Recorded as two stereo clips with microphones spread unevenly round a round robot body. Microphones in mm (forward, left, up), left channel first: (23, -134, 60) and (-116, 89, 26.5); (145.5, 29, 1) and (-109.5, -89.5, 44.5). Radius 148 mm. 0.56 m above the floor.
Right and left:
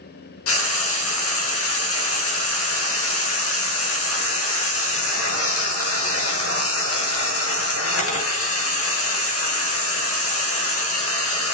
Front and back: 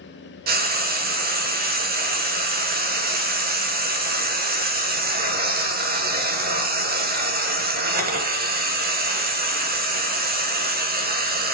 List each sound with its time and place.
0.5 s frying: 95° right, 1.6 m